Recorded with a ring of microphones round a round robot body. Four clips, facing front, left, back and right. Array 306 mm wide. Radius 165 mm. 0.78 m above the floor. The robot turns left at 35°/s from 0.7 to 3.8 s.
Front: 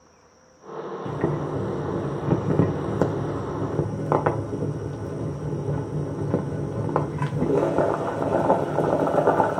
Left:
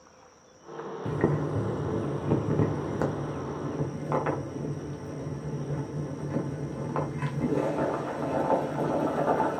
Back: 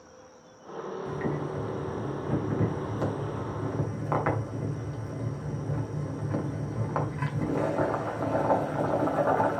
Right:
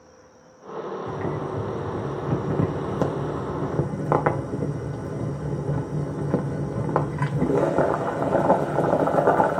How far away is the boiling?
About 1.7 m.